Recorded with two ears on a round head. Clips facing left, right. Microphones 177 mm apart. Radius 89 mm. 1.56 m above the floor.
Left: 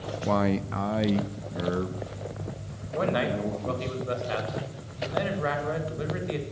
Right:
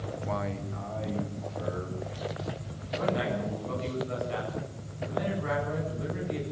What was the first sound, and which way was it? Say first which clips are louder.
A man speaking: left 10 dB; 50° left (ahead or behind).